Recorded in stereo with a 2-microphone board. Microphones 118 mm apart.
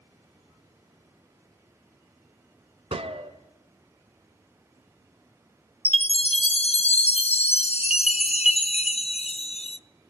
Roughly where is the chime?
Left.